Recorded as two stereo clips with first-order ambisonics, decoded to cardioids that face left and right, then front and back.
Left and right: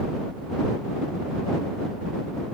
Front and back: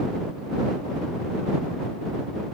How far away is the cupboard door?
I don't hear a cupboard door.